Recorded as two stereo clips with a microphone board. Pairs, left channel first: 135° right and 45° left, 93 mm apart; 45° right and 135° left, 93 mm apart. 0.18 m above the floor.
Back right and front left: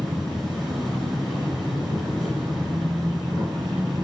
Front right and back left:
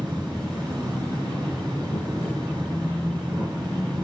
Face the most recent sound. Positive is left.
turn(degrees=135)